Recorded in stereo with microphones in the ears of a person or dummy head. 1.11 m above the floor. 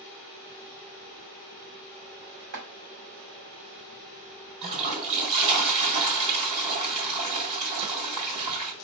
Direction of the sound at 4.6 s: 30° right (ahead or behind).